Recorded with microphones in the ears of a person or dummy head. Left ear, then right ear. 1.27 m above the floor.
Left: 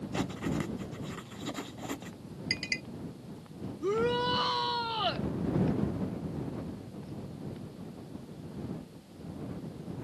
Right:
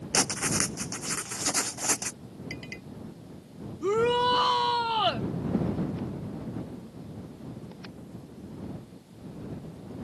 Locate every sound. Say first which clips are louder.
0.1 s writing: right 9 dB; 55° right (ahead or behind)
2.5 s a clink: left 8 dB; 40° left (ahead or behind)
3.8 s a shout: right 5 dB; 25° right (ahead or behind)